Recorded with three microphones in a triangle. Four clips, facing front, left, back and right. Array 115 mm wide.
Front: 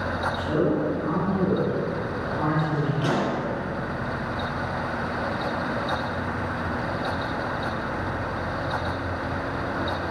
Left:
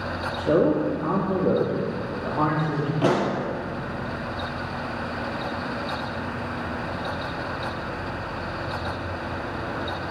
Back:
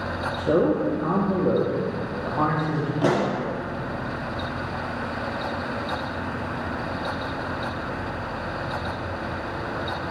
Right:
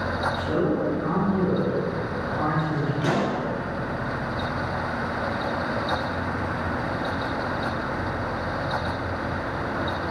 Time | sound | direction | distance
0.4 | a man speaking | 135° left | 5 m
3.0 | a pop | 135° left | 3 m